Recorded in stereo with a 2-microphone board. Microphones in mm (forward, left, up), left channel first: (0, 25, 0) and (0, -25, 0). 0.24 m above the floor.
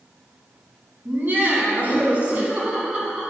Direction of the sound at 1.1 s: 40° right (ahead or behind).